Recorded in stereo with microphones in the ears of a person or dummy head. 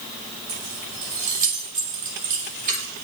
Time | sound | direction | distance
0.5 | keys jangling | 40° right (ahead or behind) | 6 m